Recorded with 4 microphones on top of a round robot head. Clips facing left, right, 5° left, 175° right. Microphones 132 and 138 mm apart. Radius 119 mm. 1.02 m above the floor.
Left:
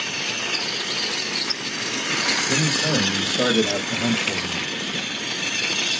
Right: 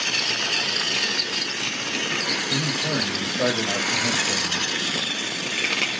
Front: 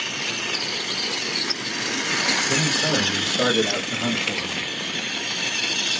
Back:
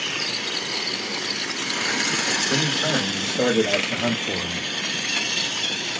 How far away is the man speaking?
About 1.7 m.